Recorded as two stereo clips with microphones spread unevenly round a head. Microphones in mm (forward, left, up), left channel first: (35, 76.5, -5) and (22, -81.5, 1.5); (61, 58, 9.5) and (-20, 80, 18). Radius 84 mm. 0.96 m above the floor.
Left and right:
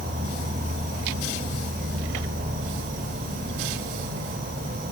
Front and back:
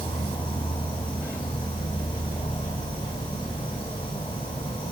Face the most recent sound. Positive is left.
turn(degrees=-60)